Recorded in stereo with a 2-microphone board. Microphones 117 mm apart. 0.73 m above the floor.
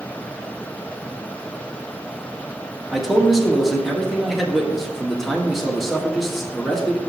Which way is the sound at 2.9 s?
Centre (ahead or behind).